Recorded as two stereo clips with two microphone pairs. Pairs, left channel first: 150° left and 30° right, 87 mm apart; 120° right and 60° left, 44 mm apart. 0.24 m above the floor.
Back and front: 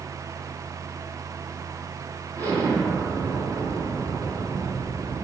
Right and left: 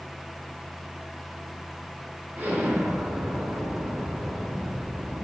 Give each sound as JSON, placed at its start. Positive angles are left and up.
{"t": 2.4, "sound": "an explosion", "azimuth_deg": 10, "distance_m": 2.0}